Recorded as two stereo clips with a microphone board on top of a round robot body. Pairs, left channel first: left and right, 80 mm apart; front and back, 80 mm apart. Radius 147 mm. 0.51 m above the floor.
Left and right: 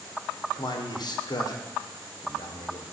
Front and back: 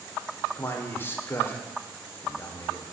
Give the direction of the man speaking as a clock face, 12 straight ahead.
10 o'clock.